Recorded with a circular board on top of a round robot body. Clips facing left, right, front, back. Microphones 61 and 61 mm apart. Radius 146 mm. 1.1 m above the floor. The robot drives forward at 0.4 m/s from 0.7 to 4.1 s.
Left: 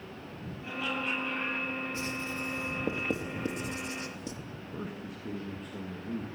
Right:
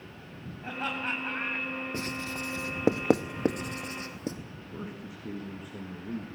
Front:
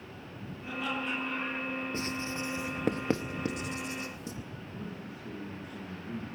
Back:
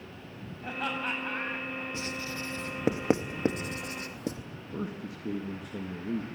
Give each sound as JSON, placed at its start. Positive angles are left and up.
{"t": 0.6, "sound": "laughter", "azimuth_deg": -140, "distance_m": 8.5}
{"t": 1.9, "sound": "writing", "azimuth_deg": -50, "distance_m": 0.6}
{"t": 4.7, "sound": "a man speaking", "azimuth_deg": -175, "distance_m": 1.8}